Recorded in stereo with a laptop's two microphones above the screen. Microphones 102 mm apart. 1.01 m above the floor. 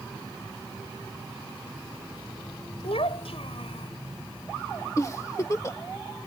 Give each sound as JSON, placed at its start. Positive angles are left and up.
{"t": 2.8, "sound": "a child speaking", "side_deg": 75}
{"t": 5.0, "sound": "a giggle", "side_deg": 30}